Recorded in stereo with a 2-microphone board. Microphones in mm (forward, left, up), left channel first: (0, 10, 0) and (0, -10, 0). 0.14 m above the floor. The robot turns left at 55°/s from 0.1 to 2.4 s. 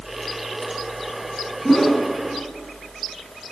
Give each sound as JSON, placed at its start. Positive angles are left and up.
{"t": 1.6, "sound": "a whoosh", "side_deg": 15, "distance_m": 0.7}